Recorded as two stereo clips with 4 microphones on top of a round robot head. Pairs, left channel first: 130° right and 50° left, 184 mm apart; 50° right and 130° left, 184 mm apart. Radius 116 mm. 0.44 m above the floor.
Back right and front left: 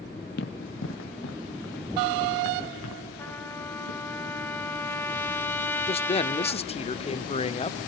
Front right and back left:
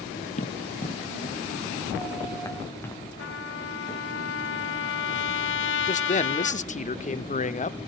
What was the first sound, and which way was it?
Running footsteps, 100° right.